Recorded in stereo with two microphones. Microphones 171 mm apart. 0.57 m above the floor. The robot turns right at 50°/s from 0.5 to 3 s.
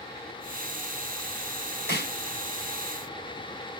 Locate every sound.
1.9 s a snare drum: 70° left (ahead or behind), 5 m; by 2.1 s 80° left, 5 m